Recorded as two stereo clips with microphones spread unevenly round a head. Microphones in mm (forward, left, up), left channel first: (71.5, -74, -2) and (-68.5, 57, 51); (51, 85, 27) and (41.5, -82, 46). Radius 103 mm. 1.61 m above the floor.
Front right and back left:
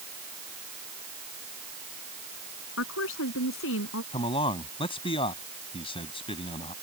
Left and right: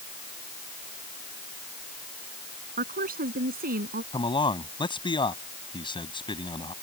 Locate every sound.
2.8 s a woman speaking: 60° right
4.1 s a man speaking: 25° left